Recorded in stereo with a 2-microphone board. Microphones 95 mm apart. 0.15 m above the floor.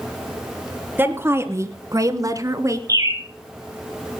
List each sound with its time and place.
1.0 s a woman speaking: 20° right (ahead or behind), 1.8 m; by 2.8 s 35° right (ahead or behind), 1.8 m
2.9 s a bird: 35° right (ahead or behind), 4.5 m